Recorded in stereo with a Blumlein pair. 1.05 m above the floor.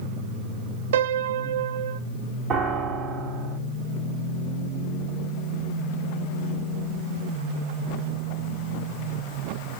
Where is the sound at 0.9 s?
60° right, 0.6 m.